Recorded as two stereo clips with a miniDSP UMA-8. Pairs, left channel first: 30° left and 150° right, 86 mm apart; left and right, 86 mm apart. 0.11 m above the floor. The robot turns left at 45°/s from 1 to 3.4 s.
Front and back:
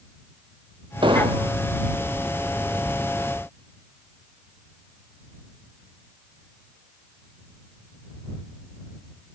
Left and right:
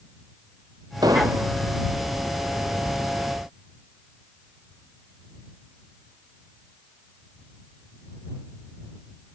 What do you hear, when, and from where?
1.0 s an explosion: 130° right; by 1.5 s 155° right